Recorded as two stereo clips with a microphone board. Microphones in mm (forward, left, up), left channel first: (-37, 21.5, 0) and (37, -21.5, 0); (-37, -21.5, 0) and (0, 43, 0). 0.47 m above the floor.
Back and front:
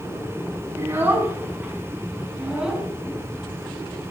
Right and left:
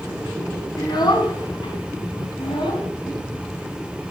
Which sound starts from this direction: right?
A child speaking, at 0.8 s.